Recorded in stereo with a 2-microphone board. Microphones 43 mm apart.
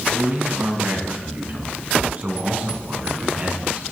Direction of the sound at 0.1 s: 50° right (ahead or behind).